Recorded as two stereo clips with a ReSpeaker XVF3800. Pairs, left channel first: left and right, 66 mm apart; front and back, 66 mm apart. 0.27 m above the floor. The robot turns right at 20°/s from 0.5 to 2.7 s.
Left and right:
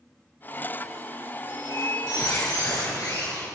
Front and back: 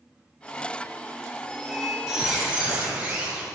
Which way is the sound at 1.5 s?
90° left.